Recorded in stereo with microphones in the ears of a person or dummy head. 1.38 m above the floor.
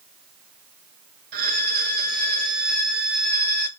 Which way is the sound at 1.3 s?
55° right (ahead or behind).